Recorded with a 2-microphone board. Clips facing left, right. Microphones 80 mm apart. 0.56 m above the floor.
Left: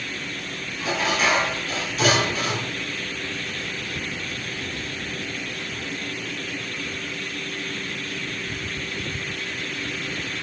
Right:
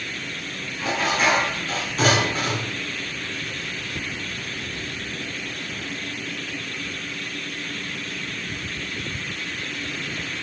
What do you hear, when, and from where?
0.8 s dishes clattering: 40° right (ahead or behind), 4 m